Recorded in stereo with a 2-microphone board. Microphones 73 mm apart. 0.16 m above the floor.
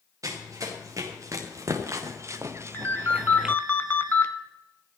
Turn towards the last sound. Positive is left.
turn(degrees=30)  # may be behind; listen again after turning